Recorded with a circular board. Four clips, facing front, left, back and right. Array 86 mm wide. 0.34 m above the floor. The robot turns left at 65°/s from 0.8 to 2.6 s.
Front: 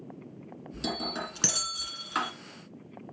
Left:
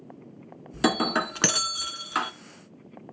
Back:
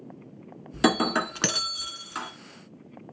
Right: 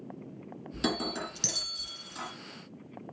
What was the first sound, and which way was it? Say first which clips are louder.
Breaking glass: left 8 dB, back 12 dB; 155° left.